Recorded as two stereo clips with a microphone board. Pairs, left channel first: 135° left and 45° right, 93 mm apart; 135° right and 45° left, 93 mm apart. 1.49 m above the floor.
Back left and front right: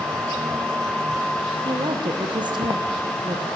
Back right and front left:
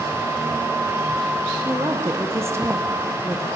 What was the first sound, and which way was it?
A woman speaking, 15° right.